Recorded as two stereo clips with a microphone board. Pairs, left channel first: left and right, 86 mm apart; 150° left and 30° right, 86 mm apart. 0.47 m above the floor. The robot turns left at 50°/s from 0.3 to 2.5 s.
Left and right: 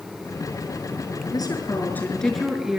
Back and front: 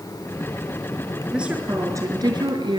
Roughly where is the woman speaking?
Ahead left.